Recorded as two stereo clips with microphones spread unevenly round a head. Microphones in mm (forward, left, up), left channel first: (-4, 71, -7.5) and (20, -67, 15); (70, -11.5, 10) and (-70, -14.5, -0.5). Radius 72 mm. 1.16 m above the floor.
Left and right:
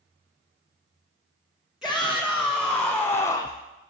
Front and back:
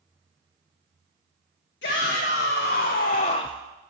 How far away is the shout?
About 1.6 m.